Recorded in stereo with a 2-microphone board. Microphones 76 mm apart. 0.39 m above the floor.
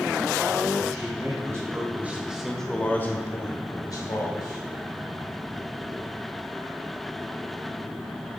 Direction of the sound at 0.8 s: 50° right (ahead or behind).